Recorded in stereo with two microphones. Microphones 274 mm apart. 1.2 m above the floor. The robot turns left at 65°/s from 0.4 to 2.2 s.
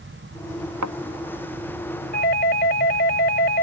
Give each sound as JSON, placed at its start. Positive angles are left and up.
{"t": 0.8, "sound": "a thud", "side_deg": -85}
{"t": 2.1, "sound": "a doorbell", "side_deg": 35}